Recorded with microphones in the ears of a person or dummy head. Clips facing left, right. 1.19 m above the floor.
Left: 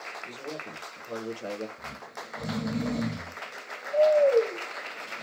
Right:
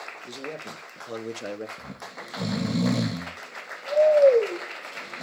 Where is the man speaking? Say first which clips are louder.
Right 3 dB; 35° right (ahead or behind), 1.4 m; by 1.7 s 10° right (ahead or behind), 0.6 m.